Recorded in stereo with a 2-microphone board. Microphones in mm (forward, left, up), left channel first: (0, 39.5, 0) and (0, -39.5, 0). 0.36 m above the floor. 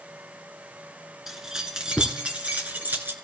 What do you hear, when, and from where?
1.3 s keys jangling: 5° right (ahead or behind), 3 m; by 3.1 s 25° right (ahead or behind), 3.5 m